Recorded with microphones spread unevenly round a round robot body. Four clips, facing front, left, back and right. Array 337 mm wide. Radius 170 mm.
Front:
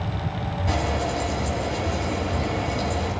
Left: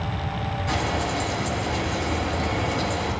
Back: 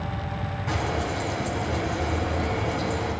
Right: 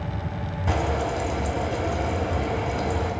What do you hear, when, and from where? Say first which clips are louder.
0.7 s frying: right 2 dB, front 2 dB; 60° right, 3 m